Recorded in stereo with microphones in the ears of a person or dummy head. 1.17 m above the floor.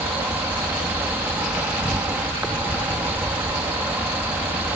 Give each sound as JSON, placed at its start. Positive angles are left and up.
{"t": 0.0, "sound": "an insect", "side_deg": -10}